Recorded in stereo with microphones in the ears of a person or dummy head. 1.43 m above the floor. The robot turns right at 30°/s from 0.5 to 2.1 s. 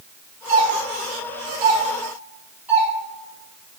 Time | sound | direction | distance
0.5 | a doorbell | 60° right (ahead or behind) | 4 m